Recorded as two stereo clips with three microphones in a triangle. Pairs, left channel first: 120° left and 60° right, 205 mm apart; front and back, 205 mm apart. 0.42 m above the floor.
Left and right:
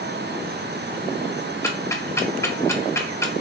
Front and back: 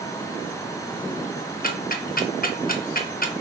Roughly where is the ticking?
Ahead left.